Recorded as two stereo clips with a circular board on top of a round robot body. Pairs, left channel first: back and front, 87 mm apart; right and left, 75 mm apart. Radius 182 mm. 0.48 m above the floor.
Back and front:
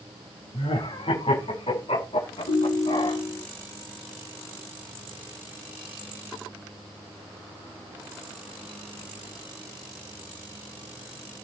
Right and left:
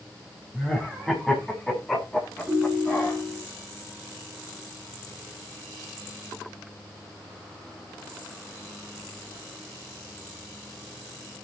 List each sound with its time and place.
0.5 s laughter: straight behind, 6.5 m; by 3.2 s 165° right, 8 m
2.5 s a ringtone: 170° left, 2.5 m